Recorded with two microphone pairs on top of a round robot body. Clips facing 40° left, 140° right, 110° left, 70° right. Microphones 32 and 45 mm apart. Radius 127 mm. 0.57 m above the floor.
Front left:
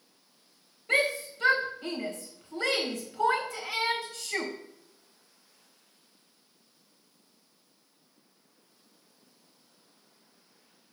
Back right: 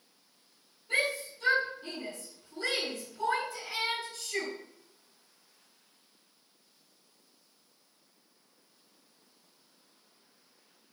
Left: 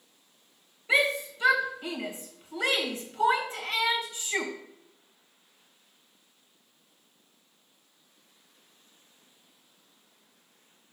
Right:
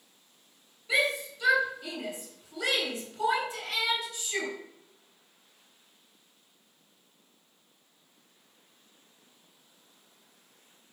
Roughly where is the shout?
Ahead left.